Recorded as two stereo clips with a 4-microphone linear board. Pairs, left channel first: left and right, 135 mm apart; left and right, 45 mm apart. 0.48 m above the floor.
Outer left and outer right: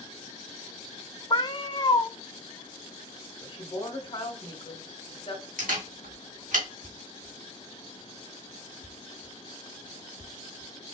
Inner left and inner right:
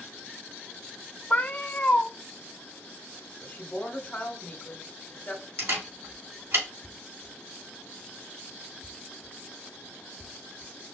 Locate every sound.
1.3 s a cat meowing: 40° left (ahead or behind), 0.5 m
3.4 s a woman speaking: 40° left (ahead or behind), 2 m
5.6 s a camera shutter: 75° right (ahead or behind), 3 m